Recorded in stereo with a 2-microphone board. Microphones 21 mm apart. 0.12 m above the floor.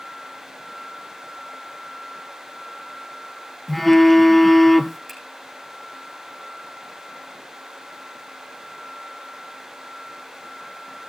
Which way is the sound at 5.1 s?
Centre (ahead or behind).